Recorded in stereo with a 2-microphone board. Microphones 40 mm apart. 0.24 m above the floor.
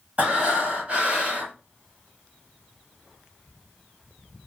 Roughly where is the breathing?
Right.